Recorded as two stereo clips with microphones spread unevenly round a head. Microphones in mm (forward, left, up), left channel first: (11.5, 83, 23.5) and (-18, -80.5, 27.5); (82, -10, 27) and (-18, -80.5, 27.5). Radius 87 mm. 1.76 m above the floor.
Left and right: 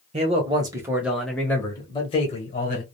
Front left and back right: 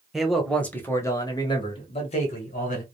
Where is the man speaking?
55° right, 1.0 m; by 2.8 s 40° left, 1.3 m.